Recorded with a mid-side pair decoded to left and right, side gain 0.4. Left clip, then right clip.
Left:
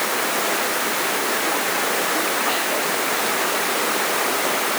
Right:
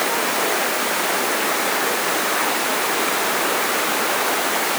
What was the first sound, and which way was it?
Only background noise.